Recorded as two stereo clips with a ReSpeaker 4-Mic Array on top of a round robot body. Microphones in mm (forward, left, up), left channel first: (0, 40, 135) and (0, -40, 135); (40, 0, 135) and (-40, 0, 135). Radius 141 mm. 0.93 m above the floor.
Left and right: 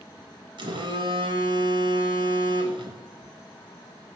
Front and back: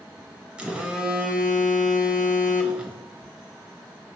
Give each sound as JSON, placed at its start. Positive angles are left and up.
{"t": 0.6, "sound": "a phone buzzing", "azimuth_deg": -105, "distance_m": 1.4}